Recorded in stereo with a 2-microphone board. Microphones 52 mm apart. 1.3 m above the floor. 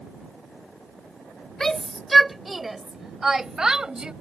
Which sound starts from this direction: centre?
A shout, at 1.6 s.